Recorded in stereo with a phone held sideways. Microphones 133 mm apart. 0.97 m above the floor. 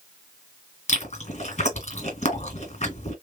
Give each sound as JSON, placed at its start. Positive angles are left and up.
{"t": 0.9, "sound": "chewing", "side_deg": 55, "distance_m": 2.0}